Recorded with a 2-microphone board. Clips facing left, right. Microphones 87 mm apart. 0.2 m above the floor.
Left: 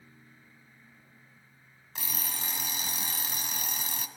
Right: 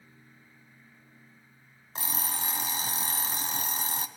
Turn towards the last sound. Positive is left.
turn(degrees=-35)  # may be behind; listen again after turning